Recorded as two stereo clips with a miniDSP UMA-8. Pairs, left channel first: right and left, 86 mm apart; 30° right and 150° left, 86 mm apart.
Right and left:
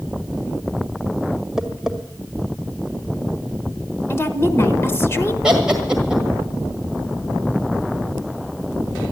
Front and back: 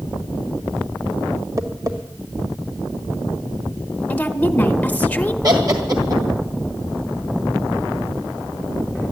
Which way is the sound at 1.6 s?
170° left.